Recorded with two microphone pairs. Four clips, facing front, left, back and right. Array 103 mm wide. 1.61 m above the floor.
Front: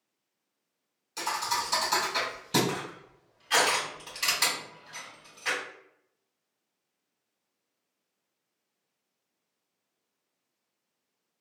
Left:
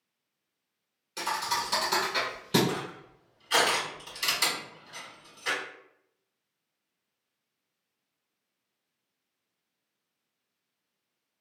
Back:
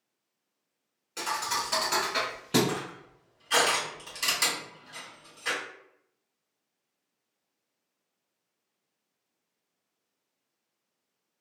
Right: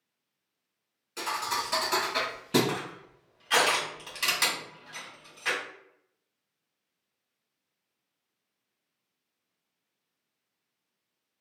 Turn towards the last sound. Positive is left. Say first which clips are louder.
# even, back 1 dB
turn(degrees=-75)